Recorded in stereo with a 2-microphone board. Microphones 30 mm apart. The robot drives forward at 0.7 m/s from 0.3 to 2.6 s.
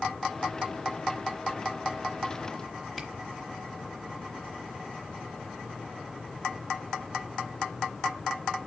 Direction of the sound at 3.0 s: 10° left (ahead or behind).